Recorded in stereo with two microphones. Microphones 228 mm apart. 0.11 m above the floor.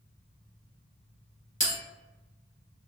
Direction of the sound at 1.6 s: 35° left (ahead or behind).